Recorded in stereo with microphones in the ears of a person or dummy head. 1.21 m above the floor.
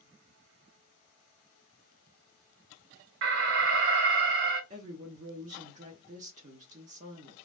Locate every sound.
3.2 s an alarm: 55° right (ahead or behind), 1.0 m
4.7 s a woman speaking: 40° right (ahead or behind), 0.7 m